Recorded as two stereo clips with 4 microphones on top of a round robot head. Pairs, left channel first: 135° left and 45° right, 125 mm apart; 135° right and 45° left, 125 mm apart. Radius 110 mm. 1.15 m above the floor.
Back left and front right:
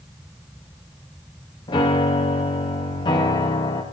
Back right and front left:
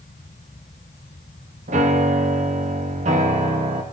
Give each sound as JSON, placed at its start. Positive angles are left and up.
{"t": 1.7, "sound": "a piano", "azimuth_deg": 75, "distance_m": 0.7}